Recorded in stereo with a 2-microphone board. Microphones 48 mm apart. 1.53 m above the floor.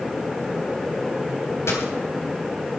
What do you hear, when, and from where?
1.7 s a dropped coin: 65° left (ahead or behind), 3 m